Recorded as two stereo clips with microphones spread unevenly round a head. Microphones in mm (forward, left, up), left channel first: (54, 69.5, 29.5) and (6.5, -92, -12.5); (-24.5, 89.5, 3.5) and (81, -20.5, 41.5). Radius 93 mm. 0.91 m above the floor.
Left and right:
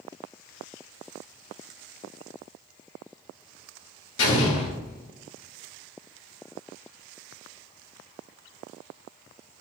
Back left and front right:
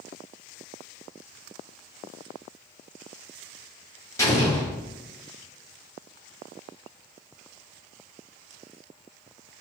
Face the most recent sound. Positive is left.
turn(degrees=70)